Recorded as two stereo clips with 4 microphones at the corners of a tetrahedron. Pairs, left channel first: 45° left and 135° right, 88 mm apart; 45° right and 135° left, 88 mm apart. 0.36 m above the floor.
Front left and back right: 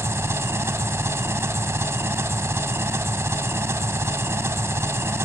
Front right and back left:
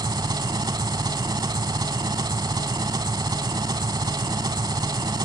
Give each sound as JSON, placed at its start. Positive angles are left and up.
{"t": 0.0, "sound": "an engine running", "azimuth_deg": 170, "distance_m": 0.9}